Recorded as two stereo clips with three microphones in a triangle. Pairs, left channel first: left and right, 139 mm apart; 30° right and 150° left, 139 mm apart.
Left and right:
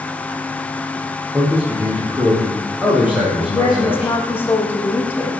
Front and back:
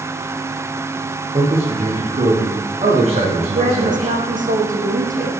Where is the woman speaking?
165° left, 7 m.